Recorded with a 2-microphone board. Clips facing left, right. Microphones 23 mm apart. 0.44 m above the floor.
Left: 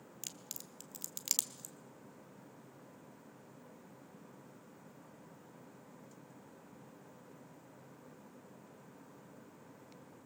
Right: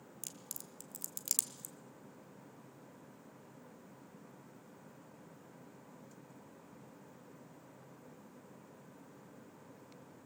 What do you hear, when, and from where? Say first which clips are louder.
0.2 s a crack: left 2 dB; 25° left (ahead or behind), 1.2 m